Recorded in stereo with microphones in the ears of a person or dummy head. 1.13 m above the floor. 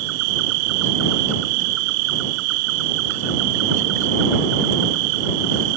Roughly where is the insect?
Right.